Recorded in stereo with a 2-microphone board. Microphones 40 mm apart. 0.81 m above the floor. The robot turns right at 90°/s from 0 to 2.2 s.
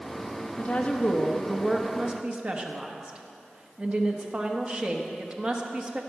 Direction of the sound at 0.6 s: 90° left.